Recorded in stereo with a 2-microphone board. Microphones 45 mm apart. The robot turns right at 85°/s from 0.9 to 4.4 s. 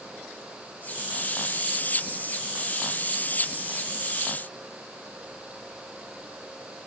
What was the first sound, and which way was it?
Only background noise.